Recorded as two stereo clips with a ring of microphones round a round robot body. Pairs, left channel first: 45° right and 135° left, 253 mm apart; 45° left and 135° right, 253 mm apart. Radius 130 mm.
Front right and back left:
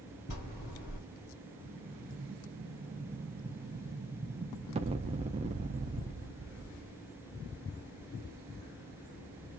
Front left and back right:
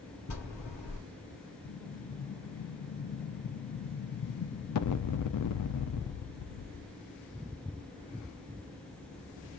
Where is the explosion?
65° left, 0.5 m.